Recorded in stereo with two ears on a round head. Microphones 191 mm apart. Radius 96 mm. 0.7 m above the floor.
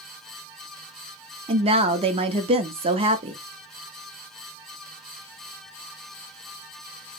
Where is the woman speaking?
25° right (ahead or behind), 0.6 m.